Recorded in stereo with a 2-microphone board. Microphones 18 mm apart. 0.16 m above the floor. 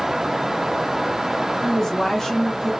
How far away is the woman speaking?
About 2.0 m.